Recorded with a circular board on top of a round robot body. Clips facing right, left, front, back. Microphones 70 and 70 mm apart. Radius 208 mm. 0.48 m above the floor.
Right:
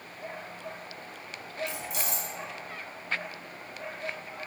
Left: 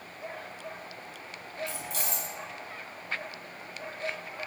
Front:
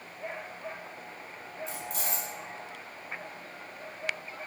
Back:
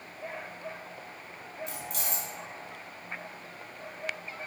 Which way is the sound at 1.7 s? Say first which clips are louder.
Right 1 dB, front 2 dB; 160° right.